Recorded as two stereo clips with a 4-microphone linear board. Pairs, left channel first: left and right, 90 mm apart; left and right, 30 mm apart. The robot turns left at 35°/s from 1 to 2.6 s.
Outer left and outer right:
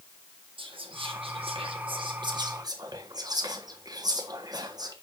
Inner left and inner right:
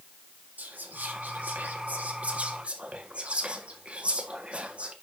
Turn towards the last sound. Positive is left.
turn(degrees=-45)  # may be behind; listen again after turning